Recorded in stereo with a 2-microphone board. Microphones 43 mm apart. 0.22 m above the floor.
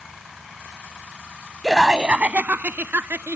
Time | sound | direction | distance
1.6 | laughter | centre (ahead or behind) | ?